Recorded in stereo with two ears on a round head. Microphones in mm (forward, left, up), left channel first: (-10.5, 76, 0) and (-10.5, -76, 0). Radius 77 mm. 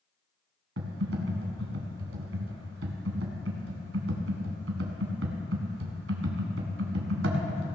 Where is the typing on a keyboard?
85° right, 2.0 m.